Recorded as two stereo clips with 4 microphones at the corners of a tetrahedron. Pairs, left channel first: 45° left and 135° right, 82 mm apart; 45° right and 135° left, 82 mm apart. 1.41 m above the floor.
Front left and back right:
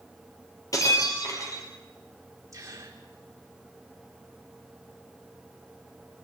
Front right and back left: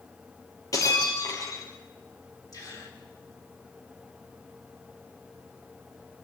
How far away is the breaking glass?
About 5.5 m.